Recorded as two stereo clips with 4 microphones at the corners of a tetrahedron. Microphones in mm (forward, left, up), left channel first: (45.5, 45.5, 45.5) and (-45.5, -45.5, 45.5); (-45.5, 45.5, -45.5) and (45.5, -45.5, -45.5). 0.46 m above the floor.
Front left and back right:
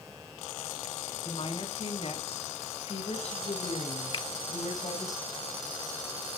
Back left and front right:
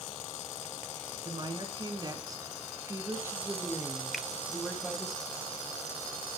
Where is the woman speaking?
5° left, 4 m; by 5.1 s 45° left, 3.5 m.